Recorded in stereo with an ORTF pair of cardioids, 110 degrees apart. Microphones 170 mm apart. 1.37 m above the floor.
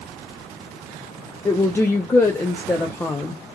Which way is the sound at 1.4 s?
15° left.